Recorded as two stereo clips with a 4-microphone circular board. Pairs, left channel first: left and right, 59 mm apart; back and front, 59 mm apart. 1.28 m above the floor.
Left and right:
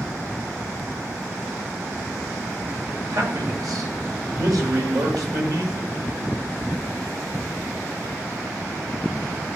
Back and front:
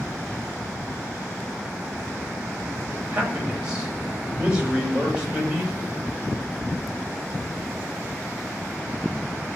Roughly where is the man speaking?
Right.